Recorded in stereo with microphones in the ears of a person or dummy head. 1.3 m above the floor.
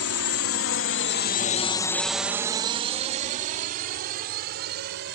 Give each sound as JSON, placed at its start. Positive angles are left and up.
{"t": 0.0, "sound": "a drone", "side_deg": 80}